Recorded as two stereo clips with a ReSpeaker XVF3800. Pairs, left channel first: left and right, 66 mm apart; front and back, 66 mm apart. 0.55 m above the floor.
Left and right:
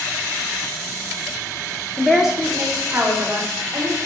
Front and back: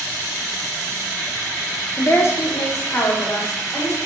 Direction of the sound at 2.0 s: 20° left.